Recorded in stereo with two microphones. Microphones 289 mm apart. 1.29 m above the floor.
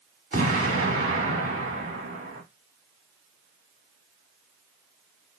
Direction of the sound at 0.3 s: 50° right (ahead or behind).